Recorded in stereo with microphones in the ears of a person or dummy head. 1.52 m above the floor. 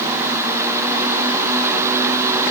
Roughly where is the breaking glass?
I don't hear breaking glass.